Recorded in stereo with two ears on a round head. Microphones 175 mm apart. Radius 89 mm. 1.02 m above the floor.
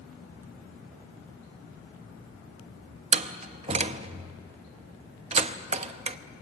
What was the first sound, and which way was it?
A door slam, 30° right (ahead or behind).